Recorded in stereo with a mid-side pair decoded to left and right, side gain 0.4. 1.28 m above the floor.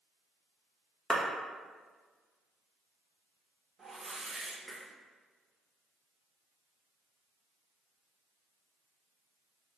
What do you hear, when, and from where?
1.1 s a clap: 10° right, 1.1 m
3.8 s a whoosh: 45° right, 1.3 m